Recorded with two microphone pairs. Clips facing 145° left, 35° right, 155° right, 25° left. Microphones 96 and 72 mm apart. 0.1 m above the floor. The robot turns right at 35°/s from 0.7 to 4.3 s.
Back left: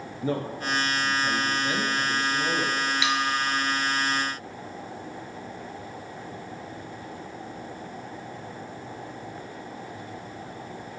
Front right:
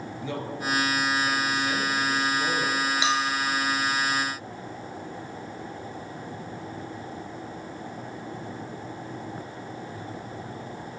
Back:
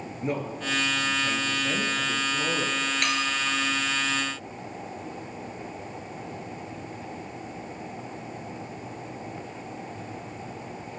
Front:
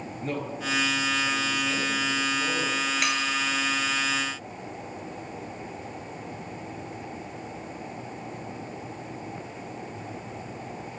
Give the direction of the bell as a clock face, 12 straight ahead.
2 o'clock.